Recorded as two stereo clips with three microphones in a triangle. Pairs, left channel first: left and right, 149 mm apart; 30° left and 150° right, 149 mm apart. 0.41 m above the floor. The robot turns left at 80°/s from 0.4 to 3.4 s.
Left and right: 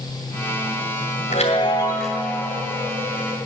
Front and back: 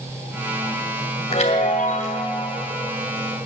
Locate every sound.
1.3 s a chime: 65° left, 2.0 m; by 2.3 s 15° right, 2.0 m